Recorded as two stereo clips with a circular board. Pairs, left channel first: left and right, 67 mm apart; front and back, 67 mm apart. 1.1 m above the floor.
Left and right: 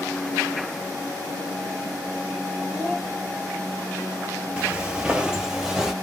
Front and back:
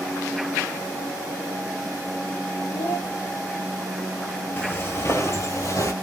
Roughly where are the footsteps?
Ahead right.